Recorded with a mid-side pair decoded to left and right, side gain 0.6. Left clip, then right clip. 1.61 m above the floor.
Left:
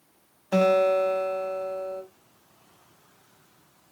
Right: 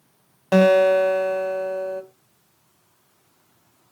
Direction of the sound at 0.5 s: 60° right.